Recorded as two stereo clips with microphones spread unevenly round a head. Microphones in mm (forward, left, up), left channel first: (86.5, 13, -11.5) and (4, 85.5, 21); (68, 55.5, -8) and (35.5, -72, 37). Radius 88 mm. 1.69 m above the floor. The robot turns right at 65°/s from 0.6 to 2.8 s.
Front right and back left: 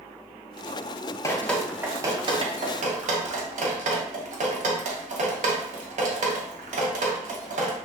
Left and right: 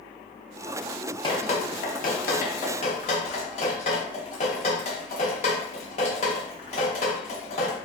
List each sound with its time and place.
1.2 s dripping: 20° left, 0.7 m; by 7.8 s 120° left, 0.7 m